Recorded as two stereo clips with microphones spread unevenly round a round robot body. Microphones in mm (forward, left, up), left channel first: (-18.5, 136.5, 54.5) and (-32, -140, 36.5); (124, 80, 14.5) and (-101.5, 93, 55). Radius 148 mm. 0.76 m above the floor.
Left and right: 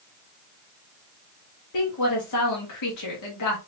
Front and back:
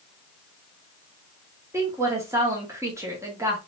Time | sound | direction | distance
1.7 | a woman speaking | 95° left | 1.5 m